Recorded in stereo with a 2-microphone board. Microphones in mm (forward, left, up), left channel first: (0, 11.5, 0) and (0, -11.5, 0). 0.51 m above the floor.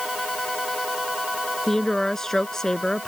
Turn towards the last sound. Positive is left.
turn(degrees=20)  # may be behind; listen again after turning